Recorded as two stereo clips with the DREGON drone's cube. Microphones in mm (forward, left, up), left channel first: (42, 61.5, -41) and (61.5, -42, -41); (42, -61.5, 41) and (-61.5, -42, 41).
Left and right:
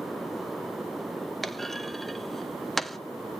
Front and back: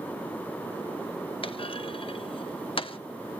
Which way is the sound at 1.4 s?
15° left.